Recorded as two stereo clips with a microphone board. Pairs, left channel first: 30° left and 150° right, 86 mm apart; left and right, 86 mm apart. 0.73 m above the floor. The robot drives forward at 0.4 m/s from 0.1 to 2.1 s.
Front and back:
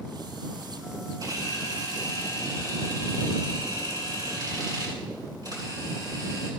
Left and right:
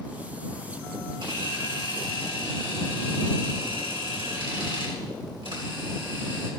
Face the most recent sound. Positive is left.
turn(degrees=-110)